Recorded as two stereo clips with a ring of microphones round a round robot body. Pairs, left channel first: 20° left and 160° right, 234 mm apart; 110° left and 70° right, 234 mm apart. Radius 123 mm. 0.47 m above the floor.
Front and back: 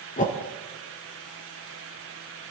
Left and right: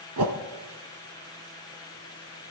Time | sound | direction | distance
0.2 | a whoosh | 40° right | 1.5 m